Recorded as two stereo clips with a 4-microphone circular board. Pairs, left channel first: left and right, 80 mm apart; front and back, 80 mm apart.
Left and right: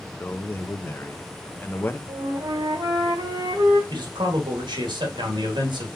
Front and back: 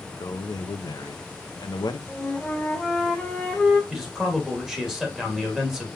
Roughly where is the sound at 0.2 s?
Ahead left.